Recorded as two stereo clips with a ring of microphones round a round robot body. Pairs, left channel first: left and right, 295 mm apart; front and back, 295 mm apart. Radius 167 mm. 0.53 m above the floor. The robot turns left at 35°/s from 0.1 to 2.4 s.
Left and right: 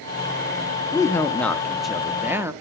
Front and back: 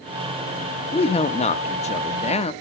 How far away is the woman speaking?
About 0.6 m.